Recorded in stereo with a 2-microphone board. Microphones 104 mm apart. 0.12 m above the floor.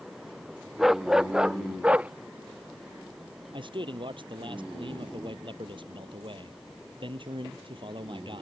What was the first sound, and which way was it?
A dog barking, centre (ahead or behind).